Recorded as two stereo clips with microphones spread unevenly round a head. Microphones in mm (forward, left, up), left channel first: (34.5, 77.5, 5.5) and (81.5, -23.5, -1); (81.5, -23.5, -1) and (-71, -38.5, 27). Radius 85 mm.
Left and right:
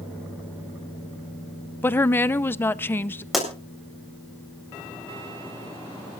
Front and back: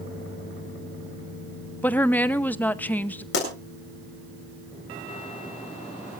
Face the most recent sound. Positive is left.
turn(degrees=25)